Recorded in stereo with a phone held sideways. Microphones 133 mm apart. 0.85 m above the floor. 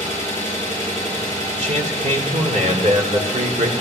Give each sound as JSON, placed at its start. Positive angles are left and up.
{"t": 0.0, "sound": "an engine running", "side_deg": 20, "distance_m": 6.5}
{"t": 1.5, "sound": "a man speaking", "side_deg": -60, "distance_m": 2.5}